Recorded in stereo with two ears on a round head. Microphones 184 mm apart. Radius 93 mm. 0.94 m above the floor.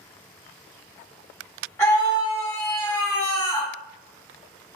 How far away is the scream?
About 2.5 m.